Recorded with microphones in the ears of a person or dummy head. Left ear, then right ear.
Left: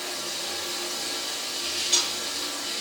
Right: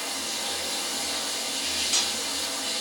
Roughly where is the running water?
Right.